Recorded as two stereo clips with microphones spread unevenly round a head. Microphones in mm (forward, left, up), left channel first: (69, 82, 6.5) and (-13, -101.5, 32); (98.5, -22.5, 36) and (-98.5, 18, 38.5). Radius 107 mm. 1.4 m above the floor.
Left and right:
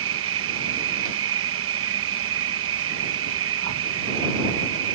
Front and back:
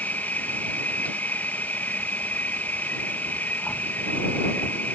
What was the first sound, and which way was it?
An insect, 95° right.